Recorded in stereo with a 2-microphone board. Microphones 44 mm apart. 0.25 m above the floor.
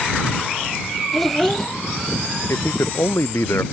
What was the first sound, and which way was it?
A child speaking, 5° left (ahead or behind).